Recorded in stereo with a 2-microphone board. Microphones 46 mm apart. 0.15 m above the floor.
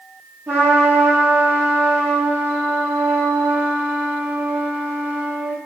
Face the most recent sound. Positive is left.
turn(degrees=-50)  # may be behind; listen again after turning